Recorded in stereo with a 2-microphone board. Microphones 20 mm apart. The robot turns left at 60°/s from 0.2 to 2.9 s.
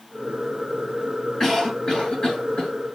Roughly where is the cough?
Behind left.